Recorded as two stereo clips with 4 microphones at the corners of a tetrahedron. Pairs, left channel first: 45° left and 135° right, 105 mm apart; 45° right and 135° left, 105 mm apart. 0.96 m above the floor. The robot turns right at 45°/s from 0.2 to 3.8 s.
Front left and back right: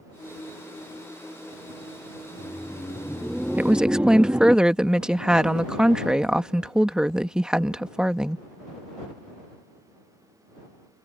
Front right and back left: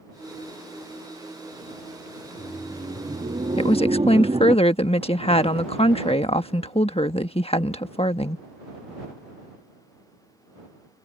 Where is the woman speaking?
65° right; by 8.4 s 50° right.